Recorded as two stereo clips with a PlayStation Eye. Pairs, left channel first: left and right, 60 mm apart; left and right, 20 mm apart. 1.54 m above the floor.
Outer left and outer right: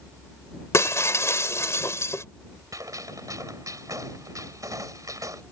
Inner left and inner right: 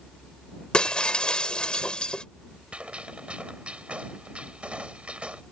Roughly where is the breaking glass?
Left.